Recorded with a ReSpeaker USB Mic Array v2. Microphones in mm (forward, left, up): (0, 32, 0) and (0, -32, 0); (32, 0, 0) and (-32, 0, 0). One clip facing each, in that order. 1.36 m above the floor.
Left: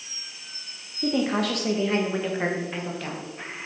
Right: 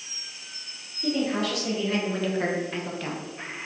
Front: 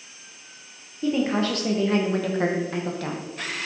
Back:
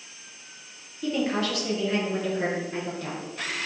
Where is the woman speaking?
75° left, 0.9 m; by 3.2 s 5° right, 1.3 m.